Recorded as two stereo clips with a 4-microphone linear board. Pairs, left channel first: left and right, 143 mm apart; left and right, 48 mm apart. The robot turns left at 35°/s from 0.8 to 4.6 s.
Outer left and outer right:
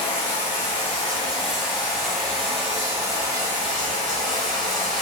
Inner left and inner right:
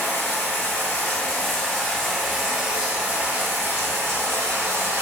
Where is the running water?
50° left, 1.1 m; by 5.0 s 85° right, 1.1 m.